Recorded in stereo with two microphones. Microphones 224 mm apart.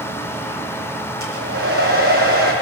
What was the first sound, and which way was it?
A hair dryer, 75° right (ahead or behind).